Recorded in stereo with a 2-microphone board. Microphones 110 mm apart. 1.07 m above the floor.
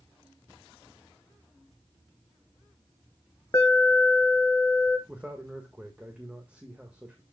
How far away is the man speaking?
About 1.5 m.